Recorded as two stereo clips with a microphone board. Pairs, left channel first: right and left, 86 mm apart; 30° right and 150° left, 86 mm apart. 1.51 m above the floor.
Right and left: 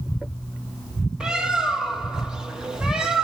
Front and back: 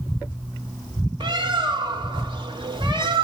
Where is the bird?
170° left, 2 m.